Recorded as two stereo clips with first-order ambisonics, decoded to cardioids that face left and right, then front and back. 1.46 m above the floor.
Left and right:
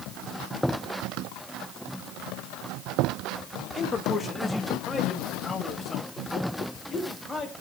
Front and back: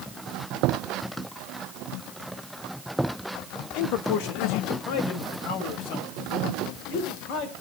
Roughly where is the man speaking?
Ahead.